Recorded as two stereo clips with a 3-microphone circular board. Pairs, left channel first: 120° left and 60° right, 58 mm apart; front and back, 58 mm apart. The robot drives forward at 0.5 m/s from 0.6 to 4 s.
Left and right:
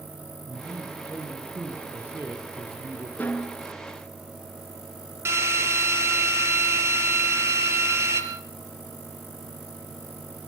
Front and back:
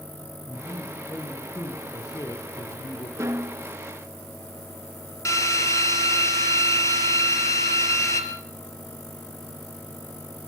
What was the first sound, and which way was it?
A man speaking, 5° right.